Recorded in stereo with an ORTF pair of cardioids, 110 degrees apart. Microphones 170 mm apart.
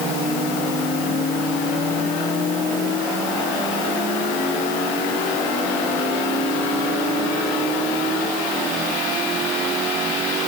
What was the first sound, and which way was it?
Only background noise.